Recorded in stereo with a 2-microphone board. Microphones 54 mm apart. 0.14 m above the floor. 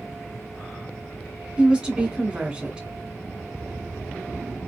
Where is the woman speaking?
20° right (ahead or behind), 1.1 m.